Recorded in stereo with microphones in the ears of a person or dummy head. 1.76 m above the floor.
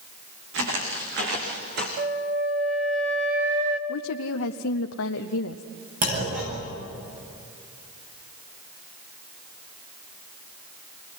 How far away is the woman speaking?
About 0.8 m.